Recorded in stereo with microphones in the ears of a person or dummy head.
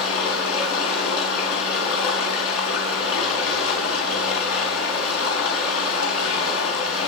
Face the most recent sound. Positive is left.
turn(degrees=80)